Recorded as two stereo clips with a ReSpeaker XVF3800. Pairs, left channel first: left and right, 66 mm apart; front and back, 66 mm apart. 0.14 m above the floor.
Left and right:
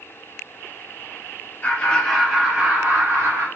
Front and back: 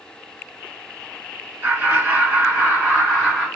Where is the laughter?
140° left, 1.9 m; by 3.5 s 100° right, 2 m.